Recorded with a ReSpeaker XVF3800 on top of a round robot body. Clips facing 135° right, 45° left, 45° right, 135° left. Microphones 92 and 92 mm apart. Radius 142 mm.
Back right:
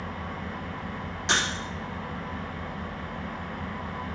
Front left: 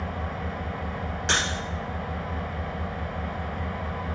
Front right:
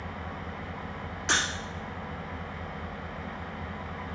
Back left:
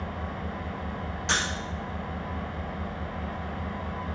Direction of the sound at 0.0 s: 85° left.